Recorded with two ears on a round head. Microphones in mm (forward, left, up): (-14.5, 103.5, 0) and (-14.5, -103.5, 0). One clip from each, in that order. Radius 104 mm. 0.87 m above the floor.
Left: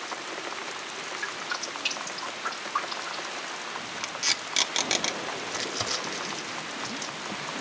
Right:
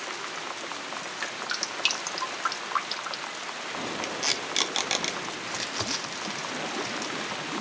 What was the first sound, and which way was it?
Dripping, 45° right (ahead or behind).